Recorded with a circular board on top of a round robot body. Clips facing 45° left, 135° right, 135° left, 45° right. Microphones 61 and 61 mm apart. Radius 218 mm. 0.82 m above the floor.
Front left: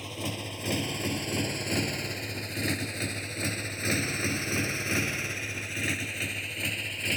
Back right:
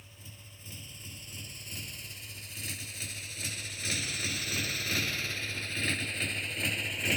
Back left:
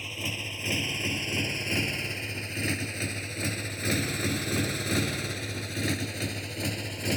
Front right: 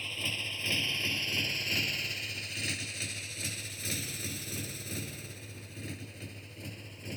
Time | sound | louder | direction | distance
0.0 | a motorcycle | front left 19 dB, back left 2 dB | 55° left | ?